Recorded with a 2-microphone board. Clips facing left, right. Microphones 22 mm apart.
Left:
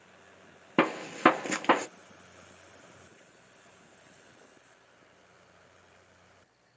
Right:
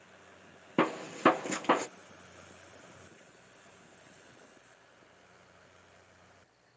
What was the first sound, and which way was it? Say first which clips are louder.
A gunshot: left 3 dB; 30° left (ahead or behind).